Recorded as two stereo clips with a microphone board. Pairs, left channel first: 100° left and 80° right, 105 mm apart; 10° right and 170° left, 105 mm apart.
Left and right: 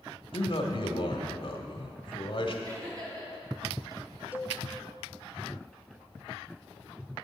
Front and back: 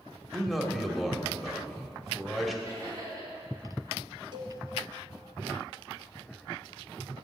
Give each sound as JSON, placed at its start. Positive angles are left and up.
{"t": 0.3, "sound": "a man speaking", "azimuth_deg": 80, "distance_m": 1.4}
{"t": 2.6, "sound": "laughter", "azimuth_deg": -135, "distance_m": 4.5}
{"t": 4.3, "sound": "a cowbell", "azimuth_deg": -150, "distance_m": 1.0}